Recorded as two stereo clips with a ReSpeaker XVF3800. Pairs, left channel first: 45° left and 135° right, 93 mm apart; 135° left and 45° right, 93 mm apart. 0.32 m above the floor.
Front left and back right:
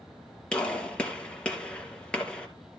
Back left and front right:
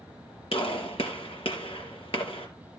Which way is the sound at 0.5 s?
125° left.